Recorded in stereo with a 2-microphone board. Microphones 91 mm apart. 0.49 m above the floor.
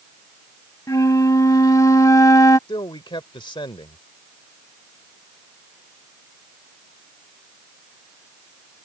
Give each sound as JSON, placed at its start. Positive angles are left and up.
{"t": 0.9, "sound": "a flute", "side_deg": 40}
{"t": 2.7, "sound": "a man speaking", "side_deg": 65}